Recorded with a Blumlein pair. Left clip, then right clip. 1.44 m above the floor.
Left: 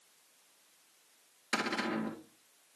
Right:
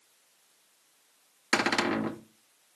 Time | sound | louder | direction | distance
1.5 | a cupboard door | right 7 dB | 25° right | 1.0 m